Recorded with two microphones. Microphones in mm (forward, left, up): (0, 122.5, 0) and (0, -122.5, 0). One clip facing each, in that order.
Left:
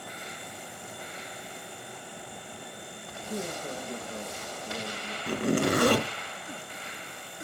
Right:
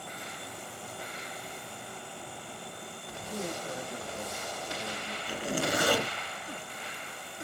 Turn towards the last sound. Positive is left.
turn(degrees=60)  # may be behind; listen again after turning